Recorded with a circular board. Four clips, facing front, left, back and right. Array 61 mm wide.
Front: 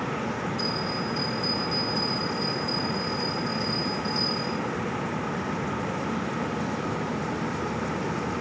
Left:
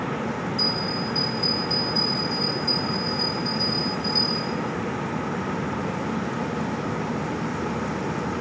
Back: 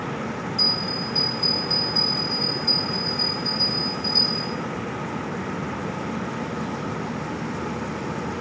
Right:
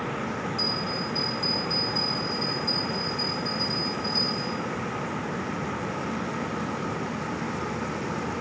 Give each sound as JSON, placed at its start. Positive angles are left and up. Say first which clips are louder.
{"t": 0.6, "sound": "a bell", "louder": "left 3 dB, even", "azimuth_deg": 180, "distance_m": 4.5}